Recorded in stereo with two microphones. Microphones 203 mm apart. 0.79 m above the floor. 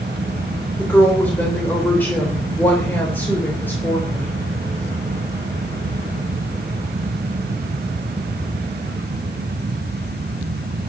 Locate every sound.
0.8 s a woman speaking: 10° left (ahead or behind), 3.5 m